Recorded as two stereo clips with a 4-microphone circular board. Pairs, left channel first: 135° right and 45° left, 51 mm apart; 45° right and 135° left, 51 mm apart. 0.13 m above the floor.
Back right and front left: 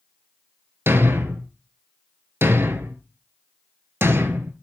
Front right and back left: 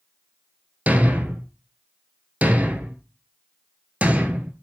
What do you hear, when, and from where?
0.9 s a thud: 80° left, 0.7 m